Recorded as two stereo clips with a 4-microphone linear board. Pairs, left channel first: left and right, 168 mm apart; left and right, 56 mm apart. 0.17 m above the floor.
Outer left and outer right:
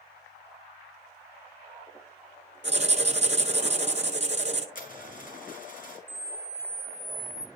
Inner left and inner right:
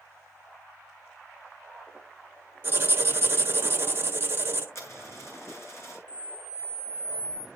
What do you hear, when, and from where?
2.6 s writing: 40° right (ahead or behind), 1.1 m
4.8 s a dropped coin: 50° left (ahead or behind), 2.5 m
6.1 s a camera shutter: 75° right (ahead or behind), 0.6 m